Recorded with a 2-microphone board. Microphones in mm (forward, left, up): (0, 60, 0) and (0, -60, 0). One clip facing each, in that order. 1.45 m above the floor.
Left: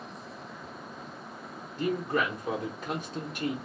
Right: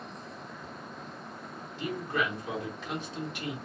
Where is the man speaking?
45° left (ahead or behind), 1.0 m.